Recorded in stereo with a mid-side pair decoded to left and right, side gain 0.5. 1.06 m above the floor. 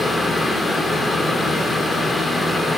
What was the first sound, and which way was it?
A fan, 20° left.